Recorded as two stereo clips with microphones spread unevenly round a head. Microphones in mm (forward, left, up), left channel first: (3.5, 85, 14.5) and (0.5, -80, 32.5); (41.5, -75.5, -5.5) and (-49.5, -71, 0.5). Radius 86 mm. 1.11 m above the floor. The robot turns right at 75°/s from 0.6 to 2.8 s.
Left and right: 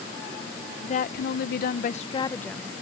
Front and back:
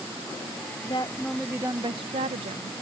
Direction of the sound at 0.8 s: 45° left.